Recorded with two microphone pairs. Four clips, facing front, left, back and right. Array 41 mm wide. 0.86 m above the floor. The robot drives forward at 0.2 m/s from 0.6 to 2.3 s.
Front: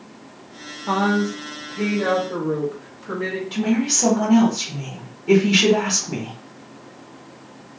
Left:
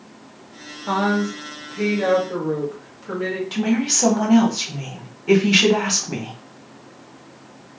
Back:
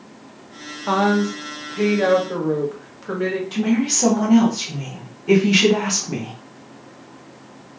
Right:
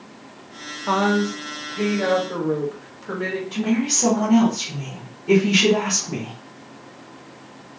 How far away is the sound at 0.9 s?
About 0.8 m.